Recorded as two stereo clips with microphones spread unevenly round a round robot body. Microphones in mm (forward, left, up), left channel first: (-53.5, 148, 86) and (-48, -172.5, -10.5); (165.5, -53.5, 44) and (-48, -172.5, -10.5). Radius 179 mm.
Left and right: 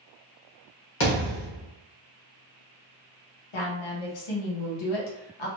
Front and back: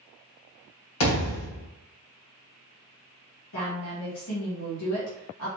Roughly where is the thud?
Ahead left.